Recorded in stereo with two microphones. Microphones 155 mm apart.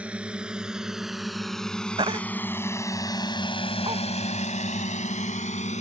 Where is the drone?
10° right (ahead or behind); by 5.8 s 50° left (ahead or behind).